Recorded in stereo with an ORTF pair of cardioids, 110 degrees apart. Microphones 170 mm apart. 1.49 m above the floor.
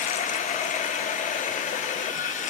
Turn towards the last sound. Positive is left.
turn(degrees=50)